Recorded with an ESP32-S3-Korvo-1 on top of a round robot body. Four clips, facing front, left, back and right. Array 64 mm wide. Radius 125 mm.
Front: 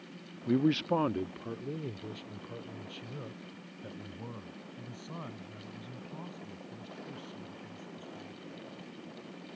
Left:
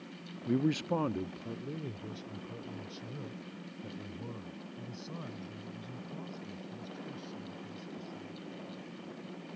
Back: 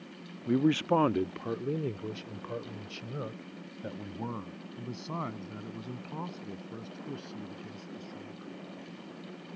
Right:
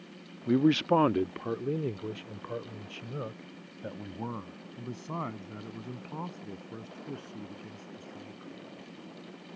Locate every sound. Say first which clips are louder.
0.5 s a man speaking: right 7 dB, back 2 dB; 95° right; by 8.5 s 130° right